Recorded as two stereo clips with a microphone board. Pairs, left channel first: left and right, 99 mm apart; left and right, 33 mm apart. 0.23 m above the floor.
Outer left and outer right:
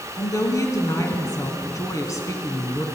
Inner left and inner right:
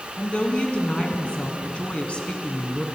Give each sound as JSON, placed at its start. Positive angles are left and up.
{"t": 0.2, "sound": "a woman speaking", "side_deg": 35, "distance_m": 2.5}